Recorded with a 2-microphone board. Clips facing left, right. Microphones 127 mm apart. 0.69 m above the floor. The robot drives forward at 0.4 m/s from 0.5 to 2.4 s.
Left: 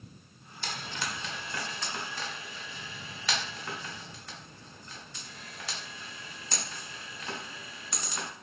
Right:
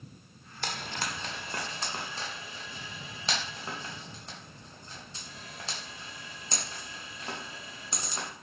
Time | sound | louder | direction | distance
0.6 | frying | right 2 dB | 60° right (ahead or behind) | 0.6 m